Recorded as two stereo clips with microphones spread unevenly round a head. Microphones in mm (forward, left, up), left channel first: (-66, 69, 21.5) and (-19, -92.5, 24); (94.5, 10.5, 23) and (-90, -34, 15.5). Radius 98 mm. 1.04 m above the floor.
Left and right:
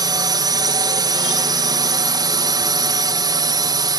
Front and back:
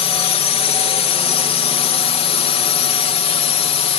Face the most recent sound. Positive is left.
turn(degrees=-20)